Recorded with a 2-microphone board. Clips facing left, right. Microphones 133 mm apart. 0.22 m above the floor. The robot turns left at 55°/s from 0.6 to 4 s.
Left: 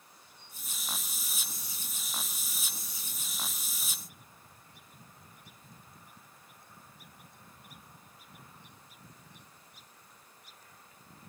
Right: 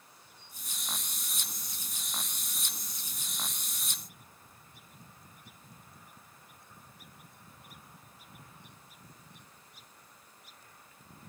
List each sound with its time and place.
Only background noise.